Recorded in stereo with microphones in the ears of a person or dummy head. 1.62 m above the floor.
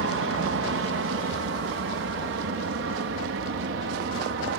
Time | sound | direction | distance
0.0 | an aircraft | 60° right (ahead or behind) | ?